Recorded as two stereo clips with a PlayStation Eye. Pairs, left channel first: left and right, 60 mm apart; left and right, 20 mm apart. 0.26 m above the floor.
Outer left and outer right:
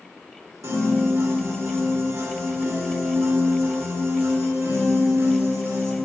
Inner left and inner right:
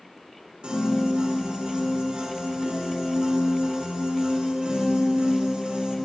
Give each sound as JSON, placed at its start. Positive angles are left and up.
{"t": 0.6, "sound": "a piano", "side_deg": -65, "distance_m": 3.0}